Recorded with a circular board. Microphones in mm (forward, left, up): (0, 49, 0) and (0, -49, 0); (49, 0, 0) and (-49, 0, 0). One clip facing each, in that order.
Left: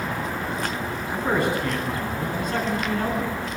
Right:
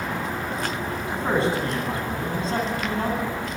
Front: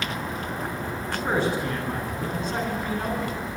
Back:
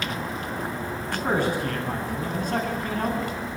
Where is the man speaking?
150° right, 10 m.